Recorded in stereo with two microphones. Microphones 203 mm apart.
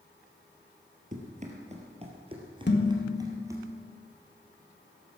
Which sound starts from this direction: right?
Running footsteps, at 1.1 s.